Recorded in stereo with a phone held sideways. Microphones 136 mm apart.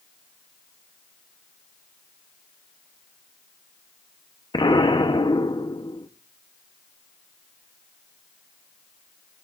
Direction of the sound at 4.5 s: 35° left (ahead or behind).